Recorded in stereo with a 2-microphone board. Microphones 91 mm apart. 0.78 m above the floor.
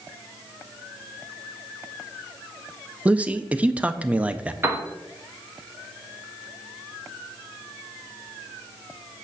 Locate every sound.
3.0 s a man speaking: 15° right (ahead or behind), 0.5 m
4.6 s a piano: 25° right (ahead or behind), 1.2 m